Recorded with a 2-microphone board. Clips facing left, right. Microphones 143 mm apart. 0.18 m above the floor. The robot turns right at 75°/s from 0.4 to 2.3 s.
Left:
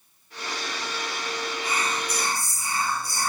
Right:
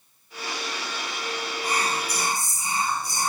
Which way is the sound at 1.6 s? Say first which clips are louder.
Right 3 dB; 80° right.